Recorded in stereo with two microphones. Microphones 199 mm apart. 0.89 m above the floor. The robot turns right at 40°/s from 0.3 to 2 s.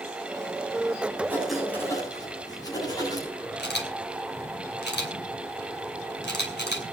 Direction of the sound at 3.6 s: 60° left (ahead or behind).